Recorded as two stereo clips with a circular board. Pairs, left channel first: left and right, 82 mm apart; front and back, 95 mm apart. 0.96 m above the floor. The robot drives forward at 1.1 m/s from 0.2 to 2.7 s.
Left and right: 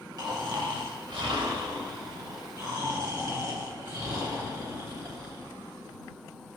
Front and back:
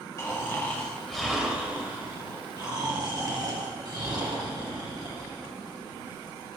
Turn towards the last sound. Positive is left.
turn(degrees=-135)